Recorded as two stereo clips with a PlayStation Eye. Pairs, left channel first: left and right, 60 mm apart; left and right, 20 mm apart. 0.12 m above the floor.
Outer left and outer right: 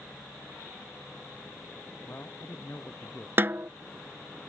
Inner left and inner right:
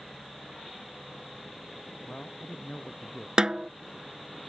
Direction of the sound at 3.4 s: 40° right (ahead or behind).